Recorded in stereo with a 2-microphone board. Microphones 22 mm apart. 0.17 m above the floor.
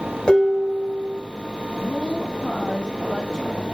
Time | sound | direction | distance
0.3 | dishes clattering | 30° left (ahead or behind) | 1.8 m
1.8 | a woman speaking | 35° left (ahead or behind) | 1.3 m